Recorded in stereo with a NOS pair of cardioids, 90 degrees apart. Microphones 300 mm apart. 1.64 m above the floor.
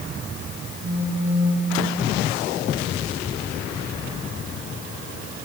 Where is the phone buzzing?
40° right, 3.5 m.